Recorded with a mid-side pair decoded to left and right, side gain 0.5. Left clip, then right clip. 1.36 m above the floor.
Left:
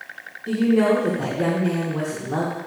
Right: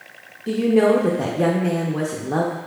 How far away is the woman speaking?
About 0.6 m.